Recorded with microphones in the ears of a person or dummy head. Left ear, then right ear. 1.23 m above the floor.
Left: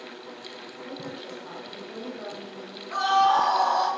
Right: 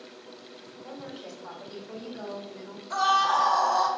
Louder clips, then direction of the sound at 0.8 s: Left 2 dB; 30° right (ahead or behind).